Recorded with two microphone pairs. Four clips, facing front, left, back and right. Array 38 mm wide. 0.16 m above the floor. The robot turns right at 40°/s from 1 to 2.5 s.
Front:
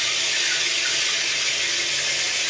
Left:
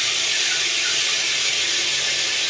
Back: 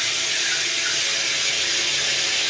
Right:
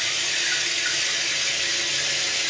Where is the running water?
85° left, 2.5 m; by 2.5 s 145° left, 2.5 m.